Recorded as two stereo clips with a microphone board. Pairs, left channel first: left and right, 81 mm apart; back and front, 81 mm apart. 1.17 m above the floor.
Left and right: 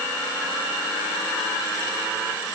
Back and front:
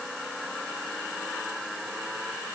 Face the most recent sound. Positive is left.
No sound to turn to.